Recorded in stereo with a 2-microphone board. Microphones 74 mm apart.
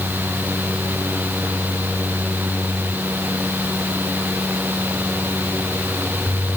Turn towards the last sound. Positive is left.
No sound to turn to.